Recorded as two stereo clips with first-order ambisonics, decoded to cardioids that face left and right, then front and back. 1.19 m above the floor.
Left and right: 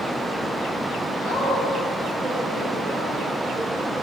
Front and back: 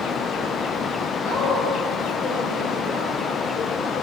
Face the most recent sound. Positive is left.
turn(degrees=-20)